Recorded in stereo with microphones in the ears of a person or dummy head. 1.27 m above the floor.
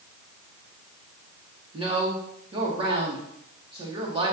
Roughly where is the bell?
No bell in this recording.